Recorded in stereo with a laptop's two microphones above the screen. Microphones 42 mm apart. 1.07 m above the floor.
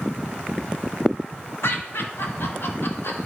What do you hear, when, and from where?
1.6 s laughter: 75° left (ahead or behind), 1.4 m